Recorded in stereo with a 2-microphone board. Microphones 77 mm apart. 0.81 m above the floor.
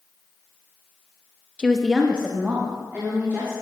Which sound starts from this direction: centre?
A woman speaking, at 1.6 s.